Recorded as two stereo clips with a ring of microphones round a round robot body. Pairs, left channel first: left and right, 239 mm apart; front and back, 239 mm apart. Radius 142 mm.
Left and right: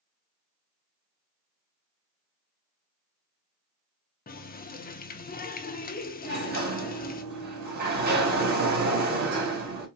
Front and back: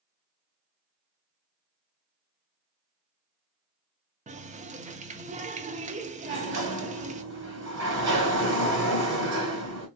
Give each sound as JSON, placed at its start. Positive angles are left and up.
{"t": 4.3, "sound": "a running tap", "azimuth_deg": 130, "distance_m": 0.8}
{"t": 6.2, "sound": "a sliding door", "azimuth_deg": -140, "distance_m": 2.0}